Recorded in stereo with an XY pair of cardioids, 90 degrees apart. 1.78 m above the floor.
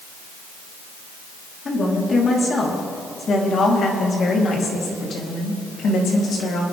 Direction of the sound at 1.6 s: 40° left.